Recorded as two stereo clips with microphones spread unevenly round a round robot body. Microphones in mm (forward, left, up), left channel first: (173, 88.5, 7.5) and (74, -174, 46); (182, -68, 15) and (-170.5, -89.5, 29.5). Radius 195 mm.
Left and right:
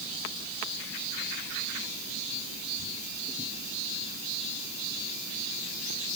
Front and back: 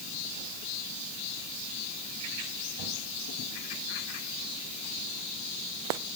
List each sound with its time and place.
Only background noise.